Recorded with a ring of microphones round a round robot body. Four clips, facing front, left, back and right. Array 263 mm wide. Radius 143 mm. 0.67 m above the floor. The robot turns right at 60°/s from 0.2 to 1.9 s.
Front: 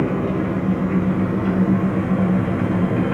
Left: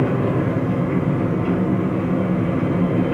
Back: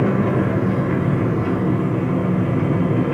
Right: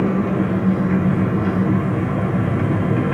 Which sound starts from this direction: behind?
An engine running, at 0.0 s.